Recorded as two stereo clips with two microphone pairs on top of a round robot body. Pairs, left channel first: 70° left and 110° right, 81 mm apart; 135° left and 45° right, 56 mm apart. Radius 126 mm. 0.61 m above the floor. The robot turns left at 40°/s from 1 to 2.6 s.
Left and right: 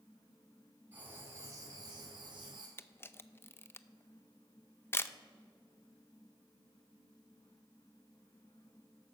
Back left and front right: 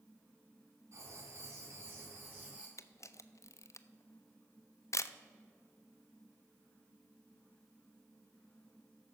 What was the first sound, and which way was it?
Writing, 40° right.